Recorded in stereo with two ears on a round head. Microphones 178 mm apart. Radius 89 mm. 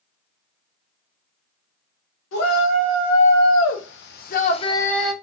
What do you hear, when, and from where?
2.3 s a shout: 80° left, 1.4 m; by 5.1 s 5° right (ahead or behind), 0.5 m